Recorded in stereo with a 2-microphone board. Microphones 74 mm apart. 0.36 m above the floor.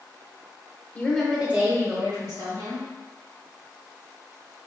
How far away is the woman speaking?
About 0.9 m.